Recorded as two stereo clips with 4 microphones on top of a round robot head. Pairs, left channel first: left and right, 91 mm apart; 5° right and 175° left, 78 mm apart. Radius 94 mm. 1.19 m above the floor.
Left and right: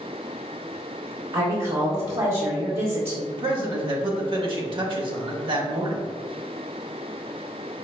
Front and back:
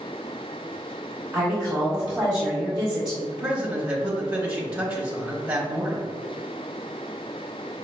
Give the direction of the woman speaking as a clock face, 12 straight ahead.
3 o'clock.